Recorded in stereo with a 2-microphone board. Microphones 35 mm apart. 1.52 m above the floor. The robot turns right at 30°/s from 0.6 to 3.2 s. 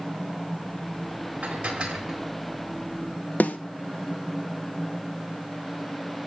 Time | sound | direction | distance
1.4 | dishes clattering | 40° right (ahead or behind) | 4 m
3.4 | a snare drum | 55° left (ahead or behind) | 1.1 m